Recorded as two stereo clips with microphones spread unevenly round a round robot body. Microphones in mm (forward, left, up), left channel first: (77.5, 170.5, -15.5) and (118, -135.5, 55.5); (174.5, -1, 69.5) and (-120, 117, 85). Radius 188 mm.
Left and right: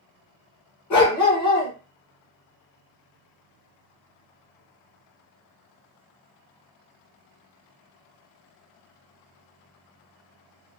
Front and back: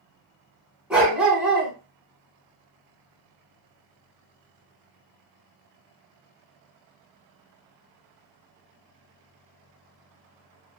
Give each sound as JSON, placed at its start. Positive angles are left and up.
{"t": 0.9, "sound": "a dog barking", "azimuth_deg": 70, "distance_m": 1.5}